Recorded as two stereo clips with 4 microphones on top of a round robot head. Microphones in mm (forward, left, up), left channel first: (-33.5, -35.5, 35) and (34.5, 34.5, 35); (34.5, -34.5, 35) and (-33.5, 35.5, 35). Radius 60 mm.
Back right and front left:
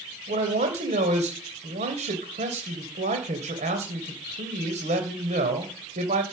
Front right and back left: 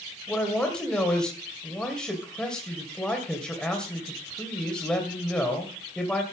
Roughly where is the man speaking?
Ahead left.